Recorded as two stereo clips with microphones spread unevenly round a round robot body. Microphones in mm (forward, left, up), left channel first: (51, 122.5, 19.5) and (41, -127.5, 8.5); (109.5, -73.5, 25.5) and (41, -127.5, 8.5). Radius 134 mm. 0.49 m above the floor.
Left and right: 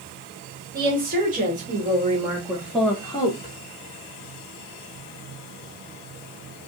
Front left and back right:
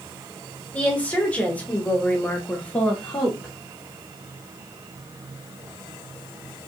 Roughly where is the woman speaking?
Ahead right.